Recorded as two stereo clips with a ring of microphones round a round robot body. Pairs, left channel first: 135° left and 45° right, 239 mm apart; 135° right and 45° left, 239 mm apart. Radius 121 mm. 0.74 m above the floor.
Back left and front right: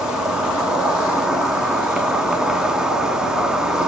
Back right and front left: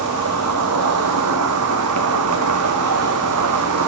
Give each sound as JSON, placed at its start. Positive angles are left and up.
{"t": 0.0, "sound": "an insect", "azimuth_deg": 40, "distance_m": 1.2}